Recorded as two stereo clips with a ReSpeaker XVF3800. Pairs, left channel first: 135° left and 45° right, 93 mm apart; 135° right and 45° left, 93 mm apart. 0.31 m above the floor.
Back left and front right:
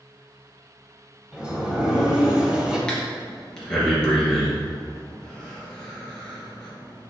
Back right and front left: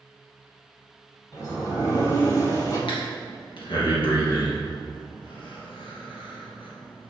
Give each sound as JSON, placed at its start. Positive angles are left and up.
{"t": 1.3, "sound": "a sliding door", "azimuth_deg": -125, "distance_m": 1.9}
{"t": 2.9, "sound": "breathing", "azimuth_deg": -145, "distance_m": 2.5}